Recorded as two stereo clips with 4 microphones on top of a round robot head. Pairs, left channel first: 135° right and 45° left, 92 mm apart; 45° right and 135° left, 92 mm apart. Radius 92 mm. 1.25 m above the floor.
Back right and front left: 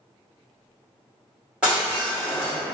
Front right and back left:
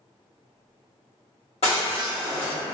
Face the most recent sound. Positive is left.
turn(degrees=-40)